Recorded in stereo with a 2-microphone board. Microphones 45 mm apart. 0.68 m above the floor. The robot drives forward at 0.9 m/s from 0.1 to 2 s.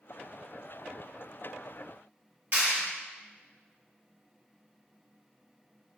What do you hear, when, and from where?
2.5 s a clap: 55° right (ahead or behind), 1.7 m